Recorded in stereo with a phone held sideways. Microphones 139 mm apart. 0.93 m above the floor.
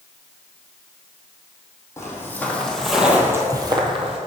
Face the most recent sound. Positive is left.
turn(degrees=-45)  # may be behind; listen again after turning